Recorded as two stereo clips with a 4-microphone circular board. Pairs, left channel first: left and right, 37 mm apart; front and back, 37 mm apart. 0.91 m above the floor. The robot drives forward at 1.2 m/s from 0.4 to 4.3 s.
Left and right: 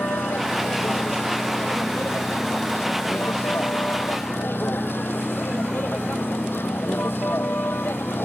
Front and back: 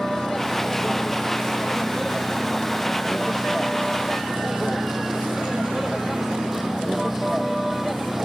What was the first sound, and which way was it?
A vehicle, 80° left.